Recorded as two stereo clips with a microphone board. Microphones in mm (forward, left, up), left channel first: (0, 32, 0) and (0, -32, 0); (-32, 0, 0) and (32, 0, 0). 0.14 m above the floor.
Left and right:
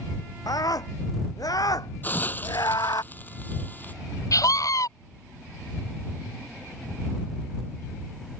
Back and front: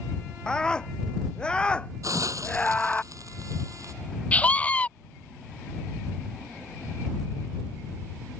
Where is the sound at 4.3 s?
115° left.